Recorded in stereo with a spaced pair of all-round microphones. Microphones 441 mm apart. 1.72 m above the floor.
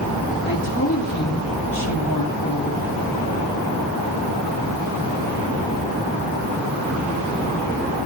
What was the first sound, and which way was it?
A woman speaking, 25° left (ahead or behind).